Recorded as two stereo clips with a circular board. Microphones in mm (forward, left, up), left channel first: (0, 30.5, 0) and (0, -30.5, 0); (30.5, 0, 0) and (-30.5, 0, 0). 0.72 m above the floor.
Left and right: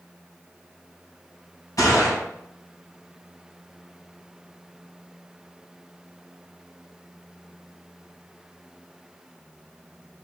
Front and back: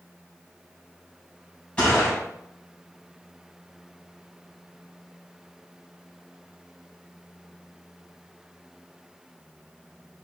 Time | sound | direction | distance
1.8 | a gunshot | 70° left | 3.5 m